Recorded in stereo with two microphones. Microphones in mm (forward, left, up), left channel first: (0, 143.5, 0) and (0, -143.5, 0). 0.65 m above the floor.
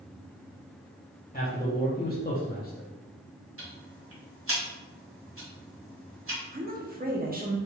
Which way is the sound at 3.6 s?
50° right (ahead or behind).